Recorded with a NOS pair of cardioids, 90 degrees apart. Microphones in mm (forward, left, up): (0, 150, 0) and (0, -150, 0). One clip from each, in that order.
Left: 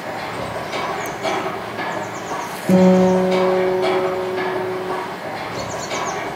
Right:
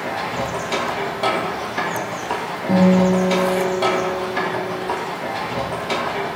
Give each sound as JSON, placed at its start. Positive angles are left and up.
{"t": 0.0, "sound": "a machine running", "azimuth_deg": -60, "distance_m": 0.9}
{"t": 2.7, "sound": "a guitar", "azimuth_deg": 25, "distance_m": 0.6}